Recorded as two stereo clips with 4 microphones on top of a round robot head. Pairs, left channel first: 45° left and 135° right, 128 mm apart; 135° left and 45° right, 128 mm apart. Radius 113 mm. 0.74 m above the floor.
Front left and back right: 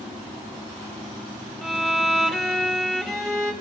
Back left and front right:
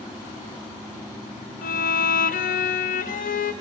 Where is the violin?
130° left, 1.8 m.